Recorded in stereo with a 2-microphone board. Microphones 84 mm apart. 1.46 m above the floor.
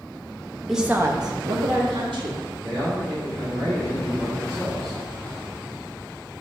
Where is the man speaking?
40° right (ahead or behind), 2.5 m.